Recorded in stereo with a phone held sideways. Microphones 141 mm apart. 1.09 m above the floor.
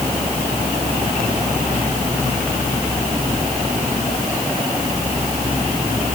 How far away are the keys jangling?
I don't hear keys jangling.